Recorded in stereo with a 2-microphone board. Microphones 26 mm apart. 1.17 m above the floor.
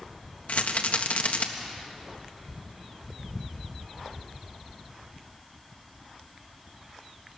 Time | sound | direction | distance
0.5 | a rattle | 65° left (ahead or behind) | 1.4 m